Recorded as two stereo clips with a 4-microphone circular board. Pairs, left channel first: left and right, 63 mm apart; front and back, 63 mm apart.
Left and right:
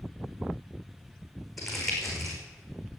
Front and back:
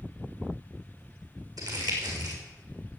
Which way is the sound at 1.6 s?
Straight behind.